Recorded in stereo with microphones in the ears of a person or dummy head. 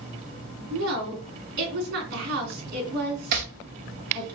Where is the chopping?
50° right (ahead or behind), 0.7 m.